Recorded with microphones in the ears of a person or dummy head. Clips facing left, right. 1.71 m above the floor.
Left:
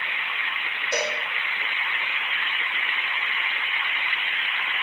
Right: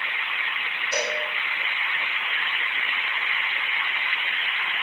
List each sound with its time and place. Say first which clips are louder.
0.9 s a cowbell: left 1 dB; 25° left (ahead or behind), 3.5 m